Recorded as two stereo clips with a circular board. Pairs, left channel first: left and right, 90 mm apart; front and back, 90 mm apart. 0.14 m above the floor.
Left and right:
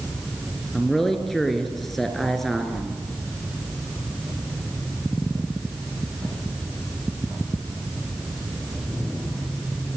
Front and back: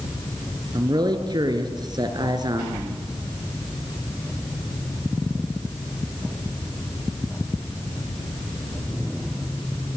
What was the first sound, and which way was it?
A man speaking, 175° left.